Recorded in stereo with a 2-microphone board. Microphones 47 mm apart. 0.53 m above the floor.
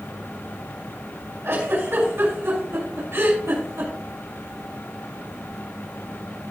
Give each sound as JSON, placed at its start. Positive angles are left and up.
{"t": 1.4, "sound": "a giggle", "side_deg": -70, "distance_m": 5.5}